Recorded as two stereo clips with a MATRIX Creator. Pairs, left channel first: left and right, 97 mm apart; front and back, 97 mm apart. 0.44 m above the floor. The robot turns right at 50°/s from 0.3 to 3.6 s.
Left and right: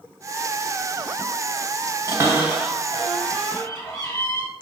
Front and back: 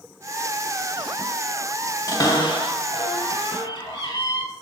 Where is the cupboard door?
40° right, 1.9 m; by 4.5 s 40° left, 1.9 m.